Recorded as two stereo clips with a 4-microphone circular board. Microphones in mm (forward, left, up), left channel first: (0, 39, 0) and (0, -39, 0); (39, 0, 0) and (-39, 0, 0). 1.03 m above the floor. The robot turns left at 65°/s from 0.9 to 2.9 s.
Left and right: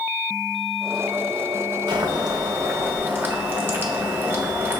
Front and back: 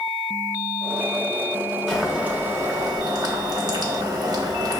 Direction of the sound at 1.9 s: 85° right.